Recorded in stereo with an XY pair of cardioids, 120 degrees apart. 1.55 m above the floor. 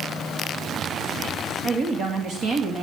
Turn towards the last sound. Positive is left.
turn(degrees=-55)